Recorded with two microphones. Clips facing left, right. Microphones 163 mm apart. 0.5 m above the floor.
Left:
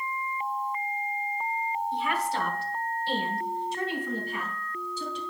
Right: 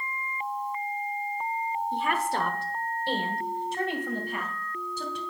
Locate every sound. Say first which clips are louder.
1.9 s a woman speaking: right 2 dB; 50° right (ahead or behind), 1.0 m; by 5.2 s 65° right (ahead or behind), 2.5 m